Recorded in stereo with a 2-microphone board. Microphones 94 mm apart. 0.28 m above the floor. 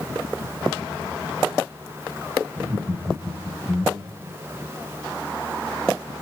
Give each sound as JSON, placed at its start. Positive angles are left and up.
{"t": 2.6, "sound": "laughter", "side_deg": -40, "distance_m": 3.5}